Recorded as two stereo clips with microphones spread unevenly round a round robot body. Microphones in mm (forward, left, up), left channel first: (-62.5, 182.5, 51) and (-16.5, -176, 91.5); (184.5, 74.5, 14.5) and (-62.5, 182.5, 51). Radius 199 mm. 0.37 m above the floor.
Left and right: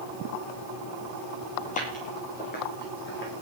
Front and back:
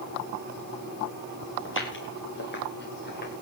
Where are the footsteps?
25° left, 8 m; by 3.4 s 35° left, 8.5 m.